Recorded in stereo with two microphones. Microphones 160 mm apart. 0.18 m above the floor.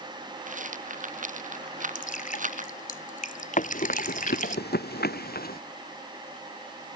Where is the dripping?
55° left (ahead or behind).